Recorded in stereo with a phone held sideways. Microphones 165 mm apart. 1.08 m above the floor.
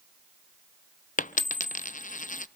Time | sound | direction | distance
1.2 | a dropped coin | 50° left (ahead or behind) | 0.5 m